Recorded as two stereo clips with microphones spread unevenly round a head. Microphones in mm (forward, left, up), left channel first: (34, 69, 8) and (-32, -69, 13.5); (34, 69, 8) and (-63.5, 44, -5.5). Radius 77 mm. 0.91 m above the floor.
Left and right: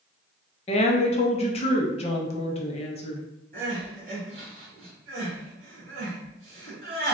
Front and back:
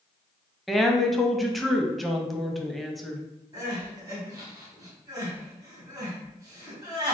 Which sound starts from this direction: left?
A woman speaking, at 0.7 s.